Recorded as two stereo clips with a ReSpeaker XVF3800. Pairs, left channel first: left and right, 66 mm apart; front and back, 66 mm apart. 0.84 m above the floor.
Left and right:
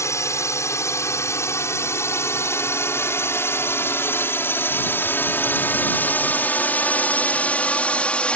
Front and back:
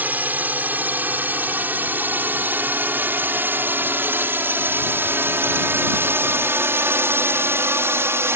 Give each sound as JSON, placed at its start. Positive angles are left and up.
{"t": 0.0, "sound": "a drone", "azimuth_deg": 125}